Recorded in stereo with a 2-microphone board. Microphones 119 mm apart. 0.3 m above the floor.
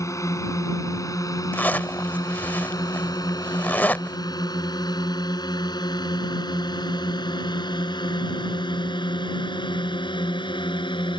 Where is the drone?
25° left (ahead or behind); by 11.2 s 45° left (ahead or behind).